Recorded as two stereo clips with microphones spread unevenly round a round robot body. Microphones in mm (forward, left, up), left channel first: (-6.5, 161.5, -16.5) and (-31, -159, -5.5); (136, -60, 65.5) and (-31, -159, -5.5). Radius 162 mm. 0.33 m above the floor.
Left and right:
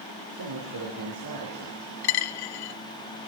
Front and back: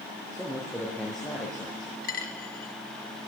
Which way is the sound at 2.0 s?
95° left.